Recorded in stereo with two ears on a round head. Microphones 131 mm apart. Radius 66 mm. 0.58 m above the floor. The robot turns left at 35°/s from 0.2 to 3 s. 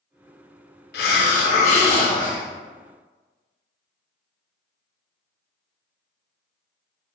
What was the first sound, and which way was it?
A hiss, 75° left.